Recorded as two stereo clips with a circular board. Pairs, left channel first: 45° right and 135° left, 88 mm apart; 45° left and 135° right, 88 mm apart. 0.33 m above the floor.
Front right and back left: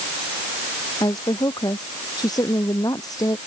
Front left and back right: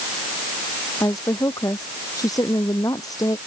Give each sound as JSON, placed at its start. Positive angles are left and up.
{"t": 1.0, "sound": "a woman speaking", "azimuth_deg": -5}